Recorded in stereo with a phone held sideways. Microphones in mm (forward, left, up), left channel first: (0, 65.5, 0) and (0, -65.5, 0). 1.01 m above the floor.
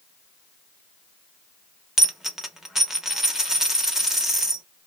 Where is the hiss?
I don't hear a hiss.